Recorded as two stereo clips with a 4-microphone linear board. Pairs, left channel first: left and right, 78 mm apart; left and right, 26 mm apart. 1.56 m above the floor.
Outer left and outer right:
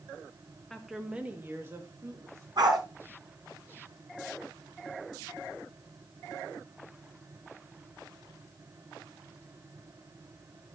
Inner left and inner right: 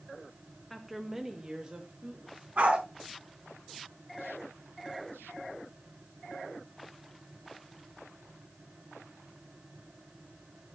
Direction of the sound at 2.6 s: 70° right (ahead or behind).